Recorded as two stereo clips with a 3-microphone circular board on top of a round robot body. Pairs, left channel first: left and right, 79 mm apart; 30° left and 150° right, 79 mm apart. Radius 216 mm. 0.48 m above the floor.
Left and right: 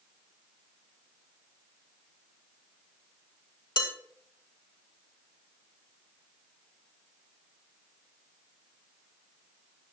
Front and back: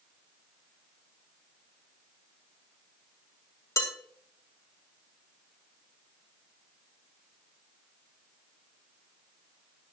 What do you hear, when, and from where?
3.8 s dishes clattering: 75° left, 3.5 m